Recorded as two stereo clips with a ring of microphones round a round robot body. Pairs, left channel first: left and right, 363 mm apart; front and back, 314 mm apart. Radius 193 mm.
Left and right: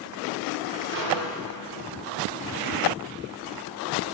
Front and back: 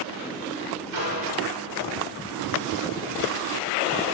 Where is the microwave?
145° right, 2.0 m.